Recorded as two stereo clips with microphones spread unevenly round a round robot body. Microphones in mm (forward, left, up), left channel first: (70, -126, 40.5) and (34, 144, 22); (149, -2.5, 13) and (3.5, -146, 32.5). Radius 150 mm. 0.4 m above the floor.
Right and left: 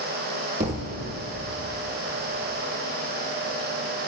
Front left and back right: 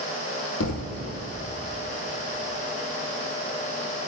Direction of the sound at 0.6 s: 30° left.